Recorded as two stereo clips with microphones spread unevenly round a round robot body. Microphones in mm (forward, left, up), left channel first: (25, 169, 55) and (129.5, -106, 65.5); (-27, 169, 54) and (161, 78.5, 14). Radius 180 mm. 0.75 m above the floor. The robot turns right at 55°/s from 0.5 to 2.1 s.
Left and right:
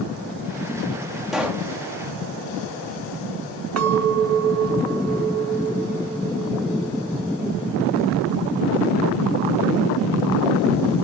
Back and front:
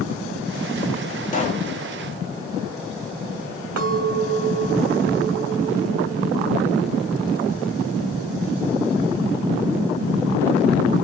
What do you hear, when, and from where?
1.3 s a pop: 160° right, 0.7 m; by 1.7 s 140° right, 0.7 m
3.8 s a clink: 35° right, 1.2 m